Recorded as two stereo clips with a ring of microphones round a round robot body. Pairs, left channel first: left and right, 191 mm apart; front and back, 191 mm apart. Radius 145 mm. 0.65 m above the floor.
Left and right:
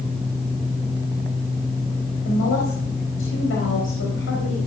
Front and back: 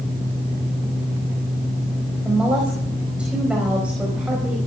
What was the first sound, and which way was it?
A woman speaking, 95° left.